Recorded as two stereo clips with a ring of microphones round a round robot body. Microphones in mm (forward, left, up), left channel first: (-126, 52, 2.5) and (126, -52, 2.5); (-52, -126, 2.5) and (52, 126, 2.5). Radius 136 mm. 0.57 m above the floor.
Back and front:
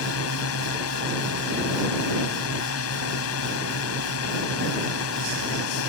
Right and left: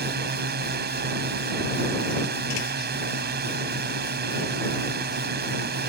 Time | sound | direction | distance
0.0 | a drone | 120° left | ?